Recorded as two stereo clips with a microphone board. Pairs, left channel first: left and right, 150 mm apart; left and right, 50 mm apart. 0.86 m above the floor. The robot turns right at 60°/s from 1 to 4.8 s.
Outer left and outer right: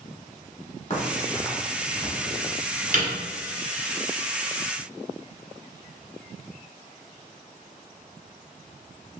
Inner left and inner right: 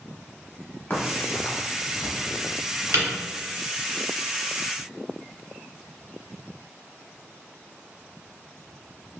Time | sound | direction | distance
0.9 | a crack | 45° left (ahead or behind) | 0.9 m